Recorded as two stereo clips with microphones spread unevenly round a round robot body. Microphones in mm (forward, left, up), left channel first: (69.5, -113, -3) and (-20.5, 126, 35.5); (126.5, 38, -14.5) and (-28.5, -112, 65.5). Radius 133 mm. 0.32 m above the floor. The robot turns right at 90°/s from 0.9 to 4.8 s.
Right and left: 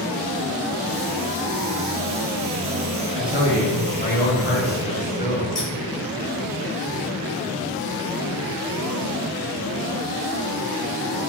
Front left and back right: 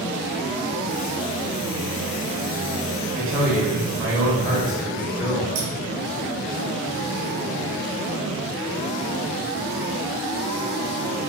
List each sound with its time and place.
3.1 s a man speaking: 170° left, 1.6 m; by 5.5 s 40° right, 1.6 m
5.5 s scissors: 150° right, 1.0 m